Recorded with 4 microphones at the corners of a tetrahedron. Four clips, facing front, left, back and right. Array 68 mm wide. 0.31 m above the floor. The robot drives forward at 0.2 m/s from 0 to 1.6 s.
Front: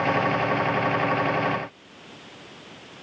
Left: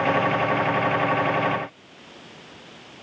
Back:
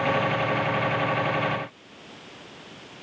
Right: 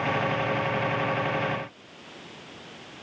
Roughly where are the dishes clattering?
I don't hear dishes clattering.